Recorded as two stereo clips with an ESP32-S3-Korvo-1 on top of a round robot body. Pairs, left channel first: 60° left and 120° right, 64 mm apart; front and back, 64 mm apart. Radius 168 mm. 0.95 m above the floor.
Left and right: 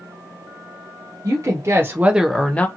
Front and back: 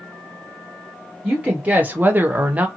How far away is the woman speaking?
About 1.0 m.